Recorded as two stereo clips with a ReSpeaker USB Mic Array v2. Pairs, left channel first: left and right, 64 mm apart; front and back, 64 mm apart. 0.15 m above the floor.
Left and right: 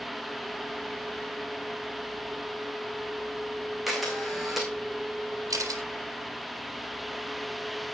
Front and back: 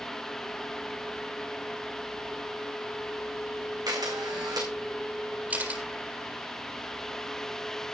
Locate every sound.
3.9 s a camera shutter: straight behind, 5 m
5.5 s a camera shutter: 115° right, 4 m